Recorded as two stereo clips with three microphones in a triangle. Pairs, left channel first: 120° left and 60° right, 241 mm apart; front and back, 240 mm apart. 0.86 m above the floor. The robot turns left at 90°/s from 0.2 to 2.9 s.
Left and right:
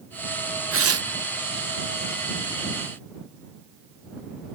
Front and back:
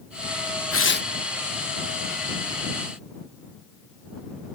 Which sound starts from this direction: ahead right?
Tearing paper, at 0.7 s.